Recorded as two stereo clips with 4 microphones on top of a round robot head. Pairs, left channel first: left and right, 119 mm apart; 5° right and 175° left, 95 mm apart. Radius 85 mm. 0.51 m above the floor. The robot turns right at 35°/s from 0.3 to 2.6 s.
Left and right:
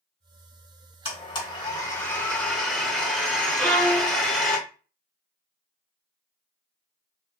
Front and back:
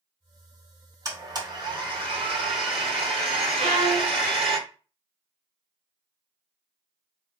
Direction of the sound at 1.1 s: 125° left.